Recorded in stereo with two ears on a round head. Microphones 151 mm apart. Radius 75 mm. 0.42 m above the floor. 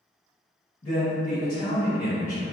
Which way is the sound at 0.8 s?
40° left (ahead or behind).